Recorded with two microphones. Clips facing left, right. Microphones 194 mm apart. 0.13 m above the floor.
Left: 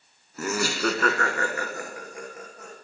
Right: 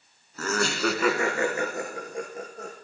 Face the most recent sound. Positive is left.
turn(degrees=-35)  # may be behind; listen again after turning